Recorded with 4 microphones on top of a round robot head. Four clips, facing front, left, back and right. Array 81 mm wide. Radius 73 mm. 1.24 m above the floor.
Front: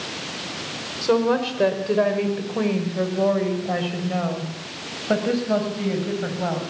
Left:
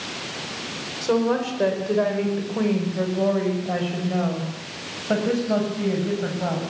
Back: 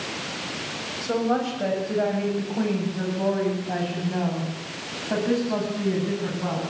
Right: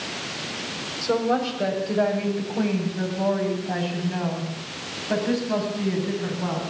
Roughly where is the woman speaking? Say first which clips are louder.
Left 1 dB, front 4 dB; ahead.